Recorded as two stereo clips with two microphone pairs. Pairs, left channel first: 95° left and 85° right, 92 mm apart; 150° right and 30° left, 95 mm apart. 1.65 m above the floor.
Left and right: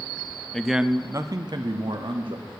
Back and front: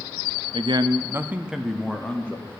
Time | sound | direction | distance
0.5 | a man speaking | 10° left | 0.6 m